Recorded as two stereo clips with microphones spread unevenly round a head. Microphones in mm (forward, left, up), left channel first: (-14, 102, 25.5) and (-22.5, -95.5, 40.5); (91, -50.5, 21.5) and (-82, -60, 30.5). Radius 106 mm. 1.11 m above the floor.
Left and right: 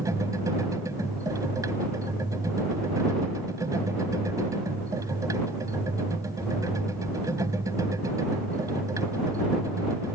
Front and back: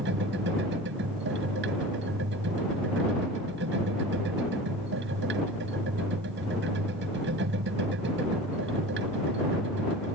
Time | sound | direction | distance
0.0 | a machine running | 165° right | ?